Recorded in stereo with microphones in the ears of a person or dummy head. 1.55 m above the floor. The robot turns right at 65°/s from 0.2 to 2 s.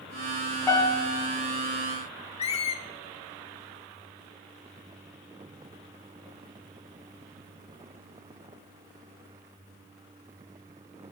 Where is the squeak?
30° left (ahead or behind), 0.6 m.